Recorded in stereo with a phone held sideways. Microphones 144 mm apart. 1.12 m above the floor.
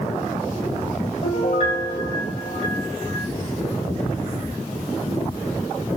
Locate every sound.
1.2 s a piano: 45° left (ahead or behind), 2.5 m